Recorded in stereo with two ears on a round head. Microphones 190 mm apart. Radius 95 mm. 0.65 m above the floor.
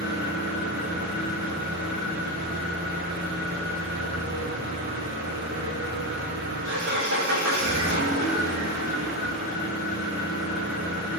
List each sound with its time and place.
0.0 s an engine running: 70° right (ahead or behind), 6.5 m